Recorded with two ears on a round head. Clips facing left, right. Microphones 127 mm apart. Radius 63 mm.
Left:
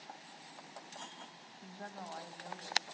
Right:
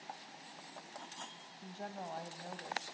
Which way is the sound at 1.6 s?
30° right (ahead or behind).